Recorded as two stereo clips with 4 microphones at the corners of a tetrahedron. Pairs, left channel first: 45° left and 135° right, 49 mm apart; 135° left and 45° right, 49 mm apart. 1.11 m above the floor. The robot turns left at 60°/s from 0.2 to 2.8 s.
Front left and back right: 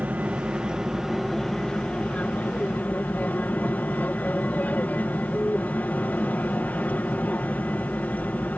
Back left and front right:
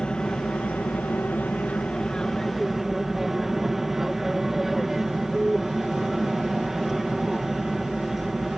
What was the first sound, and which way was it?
An aircraft, 165° right.